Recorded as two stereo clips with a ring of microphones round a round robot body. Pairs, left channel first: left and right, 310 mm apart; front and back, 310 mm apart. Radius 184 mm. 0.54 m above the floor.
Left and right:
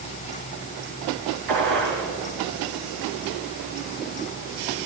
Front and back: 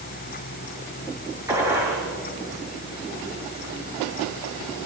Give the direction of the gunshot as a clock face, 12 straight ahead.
3 o'clock.